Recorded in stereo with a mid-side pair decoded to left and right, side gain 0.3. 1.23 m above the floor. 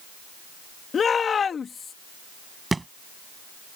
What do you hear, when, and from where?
0.9 s a shout: 65° left
2.7 s a thud: 30° right